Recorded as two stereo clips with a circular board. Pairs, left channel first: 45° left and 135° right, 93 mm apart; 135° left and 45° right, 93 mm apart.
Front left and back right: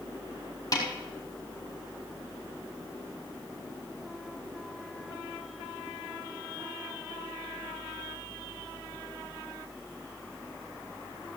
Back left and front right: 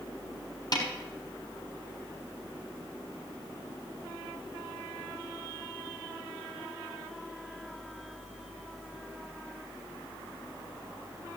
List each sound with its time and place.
0.7 s a snare drum: 95° left, 4 m